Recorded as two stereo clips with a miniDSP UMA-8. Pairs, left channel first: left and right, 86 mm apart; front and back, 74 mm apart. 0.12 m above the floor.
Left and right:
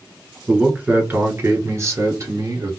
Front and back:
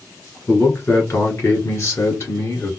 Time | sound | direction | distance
0.5 | a man speaking | 15° right | 1.3 m